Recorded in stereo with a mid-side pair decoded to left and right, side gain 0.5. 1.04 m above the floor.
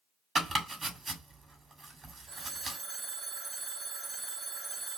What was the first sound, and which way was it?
Chopping, 35° right.